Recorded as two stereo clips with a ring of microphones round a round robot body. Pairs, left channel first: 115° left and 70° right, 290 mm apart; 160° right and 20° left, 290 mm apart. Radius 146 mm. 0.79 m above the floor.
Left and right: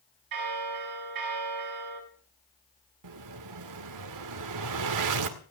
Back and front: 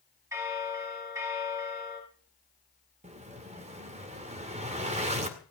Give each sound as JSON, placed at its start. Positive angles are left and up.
{"t": 0.3, "sound": "a bell", "azimuth_deg": -60, "distance_m": 8.0}
{"t": 3.0, "sound": "an explosion", "azimuth_deg": -45, "distance_m": 2.0}